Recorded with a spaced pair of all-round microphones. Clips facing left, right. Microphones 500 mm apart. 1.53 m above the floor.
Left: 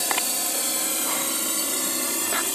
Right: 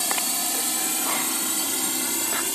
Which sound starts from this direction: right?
A drone, at 0.0 s.